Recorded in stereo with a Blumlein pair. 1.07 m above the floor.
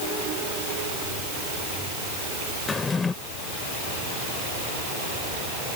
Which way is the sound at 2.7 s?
15° left.